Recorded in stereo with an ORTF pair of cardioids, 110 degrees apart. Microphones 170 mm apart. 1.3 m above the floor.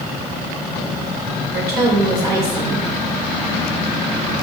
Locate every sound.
1.5 s a woman speaking: 70° right, 1.7 m